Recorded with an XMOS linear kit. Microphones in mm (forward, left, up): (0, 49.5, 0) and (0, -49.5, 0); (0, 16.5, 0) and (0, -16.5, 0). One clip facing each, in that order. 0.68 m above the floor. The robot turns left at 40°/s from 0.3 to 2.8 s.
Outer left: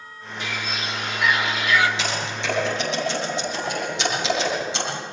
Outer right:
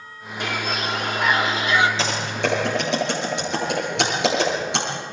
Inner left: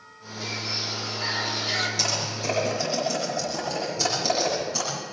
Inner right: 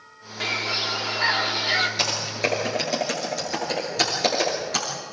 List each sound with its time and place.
0.4 s a bird: 95° right, 1.9 m; by 1.9 s 155° right, 1.9 m
2.0 s typing on a keyboard: 35° right (ahead or behind), 7.5 m; by 4.8 s 65° right (ahead or behind), 7.5 m